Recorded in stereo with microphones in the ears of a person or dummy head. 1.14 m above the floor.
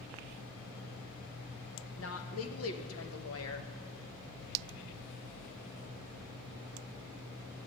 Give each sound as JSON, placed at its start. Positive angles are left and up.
{"t": 2.0, "sound": "a woman speaking", "side_deg": 75, "distance_m": 1.1}